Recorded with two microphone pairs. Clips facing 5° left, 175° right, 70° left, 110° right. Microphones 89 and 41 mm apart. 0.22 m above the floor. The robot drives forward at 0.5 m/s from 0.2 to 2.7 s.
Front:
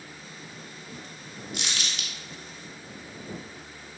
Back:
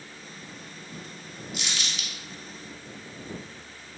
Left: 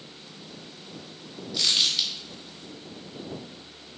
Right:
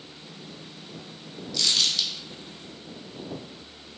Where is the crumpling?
Straight ahead, 0.8 m; by 2.1 s 5° left, 0.6 m.